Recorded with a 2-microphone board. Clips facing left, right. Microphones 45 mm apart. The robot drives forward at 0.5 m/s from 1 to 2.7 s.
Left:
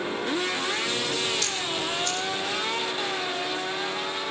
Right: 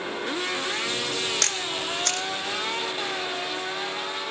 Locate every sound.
1.4 s a camera shutter: 70° right (ahead or behind), 1.3 m; by 2.3 s 80° right, 1.2 m